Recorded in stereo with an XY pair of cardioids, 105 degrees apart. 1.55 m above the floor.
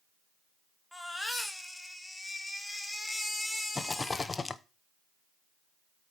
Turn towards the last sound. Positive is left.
turn(degrees=25)